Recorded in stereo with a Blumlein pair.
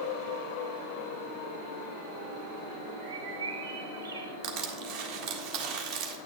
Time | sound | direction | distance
3.0 | a bird | 65° right | 1.1 m
4.4 | crushing | 35° right | 1.5 m